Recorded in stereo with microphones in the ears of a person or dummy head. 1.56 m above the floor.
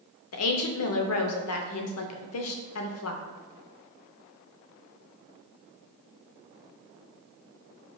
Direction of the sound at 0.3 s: 85° left.